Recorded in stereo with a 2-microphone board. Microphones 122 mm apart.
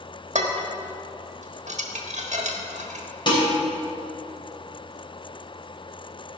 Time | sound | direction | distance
0.3 | dishes clattering | 70° right (ahead or behind) | 1.3 m
3.3 | dishes clattering | 40° left (ahead or behind) | 3.5 m